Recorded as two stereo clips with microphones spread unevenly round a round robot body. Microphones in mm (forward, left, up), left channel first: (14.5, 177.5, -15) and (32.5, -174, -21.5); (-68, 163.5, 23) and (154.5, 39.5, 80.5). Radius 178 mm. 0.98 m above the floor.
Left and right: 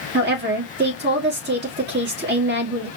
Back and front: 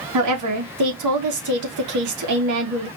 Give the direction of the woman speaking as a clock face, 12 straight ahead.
1 o'clock.